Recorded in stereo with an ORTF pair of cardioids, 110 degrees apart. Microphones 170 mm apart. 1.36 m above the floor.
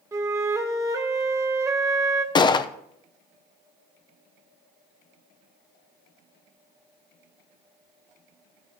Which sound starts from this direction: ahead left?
A gunshot, at 2.4 s.